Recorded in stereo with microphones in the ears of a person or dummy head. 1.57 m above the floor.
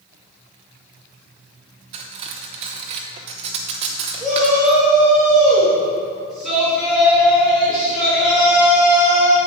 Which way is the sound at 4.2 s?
Centre (ahead or behind).